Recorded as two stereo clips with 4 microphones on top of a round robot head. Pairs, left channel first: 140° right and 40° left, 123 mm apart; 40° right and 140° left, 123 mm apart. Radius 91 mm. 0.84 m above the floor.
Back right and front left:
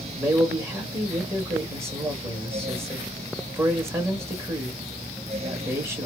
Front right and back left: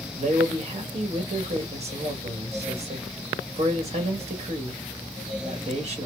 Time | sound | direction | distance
0.2 | a man speaking | 110° left | 1.7 m